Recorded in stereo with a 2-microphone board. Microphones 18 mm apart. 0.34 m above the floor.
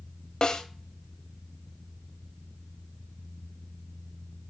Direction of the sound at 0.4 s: 45° left (ahead or behind).